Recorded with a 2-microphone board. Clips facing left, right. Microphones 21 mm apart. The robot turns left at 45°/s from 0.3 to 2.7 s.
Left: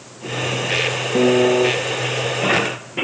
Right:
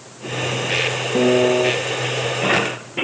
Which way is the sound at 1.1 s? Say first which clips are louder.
Left 1 dB; 15° left (ahead or behind).